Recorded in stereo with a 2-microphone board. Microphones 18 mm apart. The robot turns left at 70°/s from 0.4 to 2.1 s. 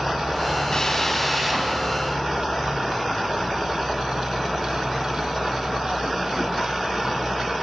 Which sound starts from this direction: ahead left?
A drill, at 0.7 s.